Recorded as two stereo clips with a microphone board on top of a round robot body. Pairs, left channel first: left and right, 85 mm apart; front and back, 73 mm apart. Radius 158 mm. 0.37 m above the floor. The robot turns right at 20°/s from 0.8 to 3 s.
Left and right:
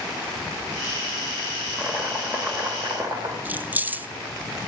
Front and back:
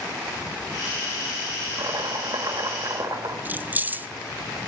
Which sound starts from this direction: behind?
Chopping, at 1.8 s.